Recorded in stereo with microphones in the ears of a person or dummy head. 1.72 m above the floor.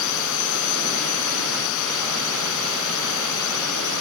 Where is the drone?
70° left (ahead or behind).